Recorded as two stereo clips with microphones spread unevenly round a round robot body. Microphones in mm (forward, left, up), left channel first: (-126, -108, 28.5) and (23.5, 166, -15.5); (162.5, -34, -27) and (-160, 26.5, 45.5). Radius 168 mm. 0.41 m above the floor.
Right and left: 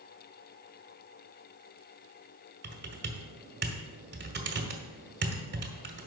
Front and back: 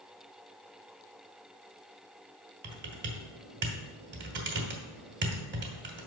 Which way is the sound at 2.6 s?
105° left.